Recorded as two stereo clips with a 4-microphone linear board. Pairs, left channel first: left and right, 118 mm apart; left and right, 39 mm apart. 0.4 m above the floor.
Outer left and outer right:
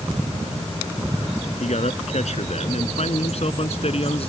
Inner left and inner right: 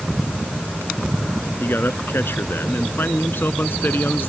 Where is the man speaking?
75° left (ahead or behind); by 4.3 s 55° left (ahead or behind).